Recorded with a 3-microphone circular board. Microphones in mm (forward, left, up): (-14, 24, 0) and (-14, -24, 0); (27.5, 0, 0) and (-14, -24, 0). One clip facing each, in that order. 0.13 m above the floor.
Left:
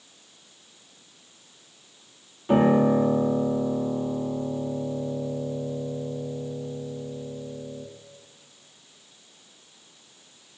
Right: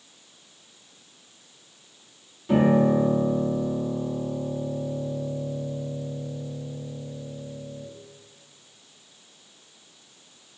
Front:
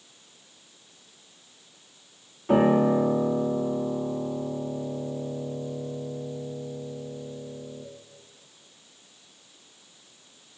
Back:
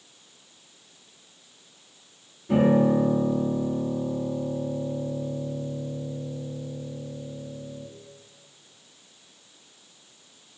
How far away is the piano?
About 0.6 m.